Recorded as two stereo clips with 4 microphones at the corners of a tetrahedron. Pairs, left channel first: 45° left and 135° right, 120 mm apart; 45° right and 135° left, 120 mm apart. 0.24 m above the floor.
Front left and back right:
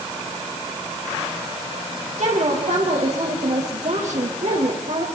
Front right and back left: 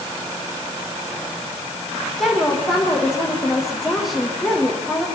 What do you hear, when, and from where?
2.2 s a woman speaking: 135° right, 8 m